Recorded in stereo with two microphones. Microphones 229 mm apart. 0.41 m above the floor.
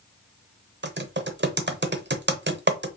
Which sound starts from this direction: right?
Typing on a keyboard, at 0.8 s.